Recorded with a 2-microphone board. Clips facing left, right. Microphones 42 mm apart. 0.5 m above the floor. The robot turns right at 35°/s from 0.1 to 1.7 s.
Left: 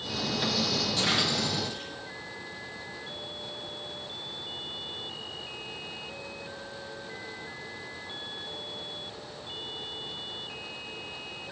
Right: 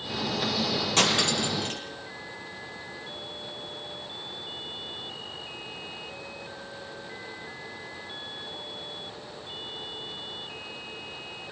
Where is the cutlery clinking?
75° right (ahead or behind), 10 m; by 1.8 s 80° right, 10 m.